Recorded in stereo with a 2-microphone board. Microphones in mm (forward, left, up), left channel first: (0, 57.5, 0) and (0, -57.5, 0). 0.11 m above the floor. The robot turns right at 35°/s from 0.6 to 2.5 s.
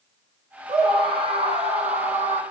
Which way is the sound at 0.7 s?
145° right.